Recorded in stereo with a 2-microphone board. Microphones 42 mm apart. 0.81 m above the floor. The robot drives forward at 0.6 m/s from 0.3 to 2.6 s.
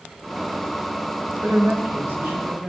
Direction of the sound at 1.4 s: 45° right (ahead or behind).